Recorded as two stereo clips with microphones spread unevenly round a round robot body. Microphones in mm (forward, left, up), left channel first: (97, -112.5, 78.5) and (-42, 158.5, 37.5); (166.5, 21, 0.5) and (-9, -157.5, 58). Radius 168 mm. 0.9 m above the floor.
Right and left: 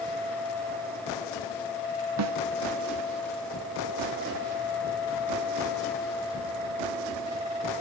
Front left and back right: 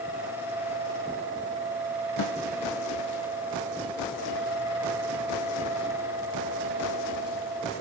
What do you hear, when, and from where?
2.2 s a snare drum: 80° left, 1.2 m